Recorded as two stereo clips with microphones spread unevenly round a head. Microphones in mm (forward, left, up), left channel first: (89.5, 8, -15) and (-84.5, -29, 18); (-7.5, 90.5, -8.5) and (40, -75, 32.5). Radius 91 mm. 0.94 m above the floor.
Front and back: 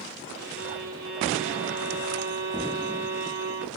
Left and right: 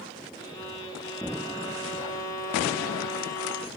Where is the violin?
175° left, 1.4 m.